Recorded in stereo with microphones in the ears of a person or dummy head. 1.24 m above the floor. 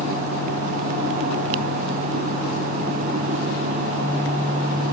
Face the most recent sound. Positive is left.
No sound to turn to.